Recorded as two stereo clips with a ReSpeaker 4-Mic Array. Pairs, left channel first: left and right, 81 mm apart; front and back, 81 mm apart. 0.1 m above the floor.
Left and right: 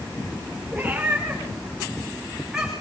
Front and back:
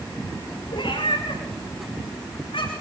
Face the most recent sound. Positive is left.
turn(degrees=-5)